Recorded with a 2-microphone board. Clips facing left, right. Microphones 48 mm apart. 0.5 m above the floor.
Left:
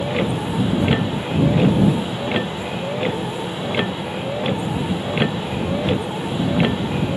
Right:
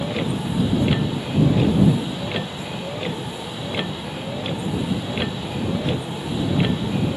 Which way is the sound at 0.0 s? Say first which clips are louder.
Left 3 dB; 25° left (ahead or behind).